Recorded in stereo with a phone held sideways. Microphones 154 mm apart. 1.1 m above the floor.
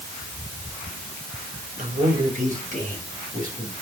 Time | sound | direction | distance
1.8 | a man speaking | 55° right (ahead or behind) | 4.5 m